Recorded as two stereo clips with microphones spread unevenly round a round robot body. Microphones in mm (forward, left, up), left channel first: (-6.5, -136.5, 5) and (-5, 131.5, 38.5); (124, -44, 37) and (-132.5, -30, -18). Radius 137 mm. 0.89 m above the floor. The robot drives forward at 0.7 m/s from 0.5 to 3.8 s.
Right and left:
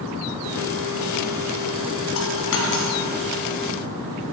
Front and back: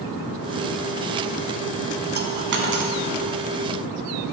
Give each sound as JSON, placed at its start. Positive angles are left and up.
{"t": 2.1, "sound": "a dropped coin", "azimuth_deg": -130, "distance_m": 1.8}